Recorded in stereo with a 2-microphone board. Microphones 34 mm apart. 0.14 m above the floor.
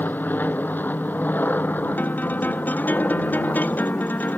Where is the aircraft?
65° left (ahead or behind); by 4.4 s 70° left (ahead or behind).